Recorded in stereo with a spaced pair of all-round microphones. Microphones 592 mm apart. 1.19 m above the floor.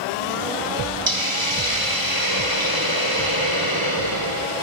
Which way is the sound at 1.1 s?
45° right (ahead or behind).